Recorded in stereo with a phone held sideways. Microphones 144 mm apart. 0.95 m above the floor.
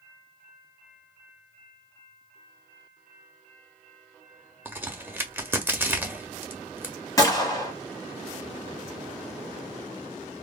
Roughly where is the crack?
Centre.